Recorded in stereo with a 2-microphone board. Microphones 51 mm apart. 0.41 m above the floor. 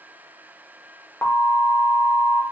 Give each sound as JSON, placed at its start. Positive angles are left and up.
{"t": 1.2, "sound": "an alarm", "side_deg": 35, "distance_m": 0.8}